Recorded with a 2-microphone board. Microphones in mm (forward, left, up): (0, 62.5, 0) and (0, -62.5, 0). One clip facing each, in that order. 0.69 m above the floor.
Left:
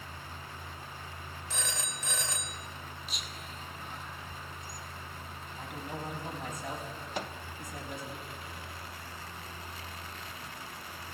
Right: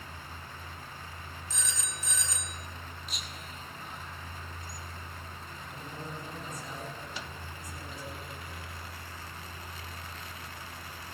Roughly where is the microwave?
Left.